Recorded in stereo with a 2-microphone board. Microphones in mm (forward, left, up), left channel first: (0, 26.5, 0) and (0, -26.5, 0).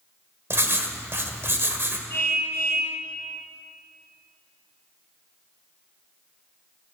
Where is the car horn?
50° left (ahead or behind), 5.5 m.